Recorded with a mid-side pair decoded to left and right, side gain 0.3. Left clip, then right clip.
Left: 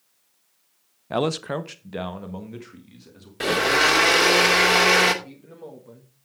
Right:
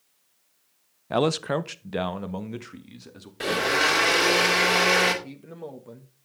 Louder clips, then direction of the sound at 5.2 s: Right 2 dB; 50° right.